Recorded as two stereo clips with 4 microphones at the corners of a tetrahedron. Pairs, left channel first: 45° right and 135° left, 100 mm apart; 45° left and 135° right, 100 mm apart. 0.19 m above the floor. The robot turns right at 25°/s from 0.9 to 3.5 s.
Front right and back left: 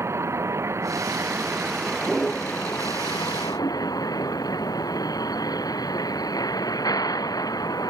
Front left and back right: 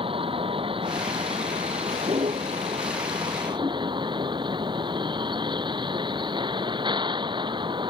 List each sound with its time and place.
0.0 s a vehicle: 160° right; by 7.9 s 95° right